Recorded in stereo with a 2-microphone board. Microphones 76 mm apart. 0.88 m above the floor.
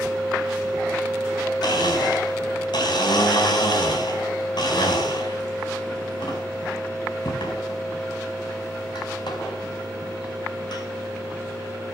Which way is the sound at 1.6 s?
75° left (ahead or behind).